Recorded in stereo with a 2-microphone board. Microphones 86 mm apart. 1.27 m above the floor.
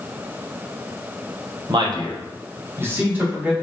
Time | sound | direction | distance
1.7 | a man speaking | 60° right (ahead or behind) | 0.8 m